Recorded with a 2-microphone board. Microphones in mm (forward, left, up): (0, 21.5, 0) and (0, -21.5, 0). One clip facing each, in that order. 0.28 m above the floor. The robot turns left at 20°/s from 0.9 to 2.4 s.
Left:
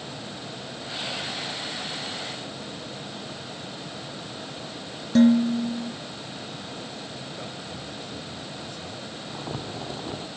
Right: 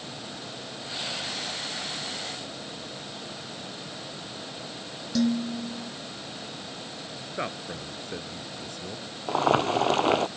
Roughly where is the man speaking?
Right.